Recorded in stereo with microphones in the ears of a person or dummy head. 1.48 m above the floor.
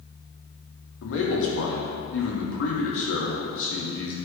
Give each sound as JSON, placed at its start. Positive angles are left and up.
{"t": 1.0, "sound": "a man speaking", "side_deg": 85, "distance_m": 2.0}